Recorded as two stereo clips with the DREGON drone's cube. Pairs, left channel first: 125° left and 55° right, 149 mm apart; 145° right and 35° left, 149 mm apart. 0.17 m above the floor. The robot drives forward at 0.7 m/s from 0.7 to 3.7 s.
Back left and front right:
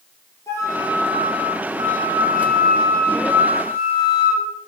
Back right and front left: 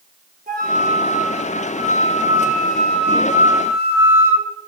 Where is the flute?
55° left, 1.2 m; by 4.5 s 145° left, 1.7 m.